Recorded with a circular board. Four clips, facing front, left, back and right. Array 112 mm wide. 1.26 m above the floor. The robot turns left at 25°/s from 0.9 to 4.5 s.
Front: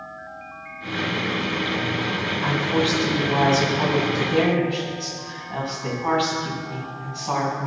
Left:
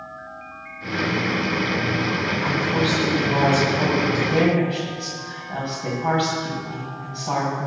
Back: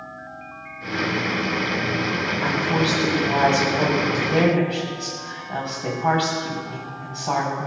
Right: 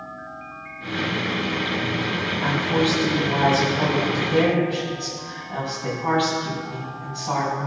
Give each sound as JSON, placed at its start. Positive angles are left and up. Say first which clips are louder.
{"t": 2.4, "sound": "a woman speaking", "louder": "right 3 dB, front 1 dB", "azimuth_deg": -150, "distance_m": 7.5}